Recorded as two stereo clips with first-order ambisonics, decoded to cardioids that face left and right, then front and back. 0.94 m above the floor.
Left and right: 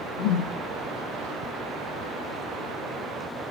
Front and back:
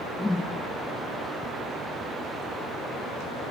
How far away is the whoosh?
About 7 m.